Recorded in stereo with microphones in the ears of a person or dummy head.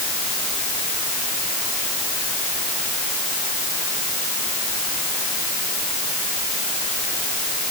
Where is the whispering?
I don't hear whispering.